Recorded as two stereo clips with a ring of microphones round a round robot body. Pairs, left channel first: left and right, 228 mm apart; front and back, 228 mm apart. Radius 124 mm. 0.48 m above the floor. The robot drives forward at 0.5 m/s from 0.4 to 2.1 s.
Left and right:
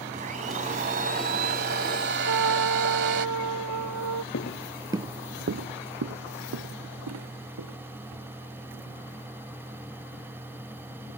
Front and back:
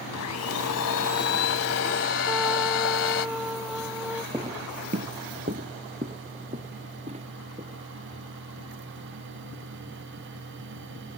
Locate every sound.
0.1 s a blender: 30° right; by 3.3 s 40° right
2.3 s a trumpet: 90° right
4.3 s footsteps: 105° left; by 9.3 s 110° right